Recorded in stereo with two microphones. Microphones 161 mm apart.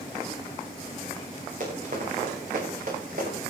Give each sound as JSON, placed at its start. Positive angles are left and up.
{"t": 1.6, "sound": "running footsteps", "side_deg": -50, "distance_m": 8.0}